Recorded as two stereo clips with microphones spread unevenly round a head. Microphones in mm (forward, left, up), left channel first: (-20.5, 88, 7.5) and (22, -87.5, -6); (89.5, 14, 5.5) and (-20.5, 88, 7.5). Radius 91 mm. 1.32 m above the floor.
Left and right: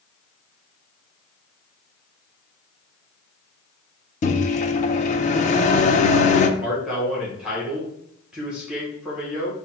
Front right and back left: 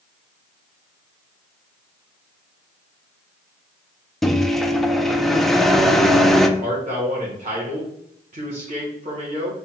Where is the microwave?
55° left, 0.5 m.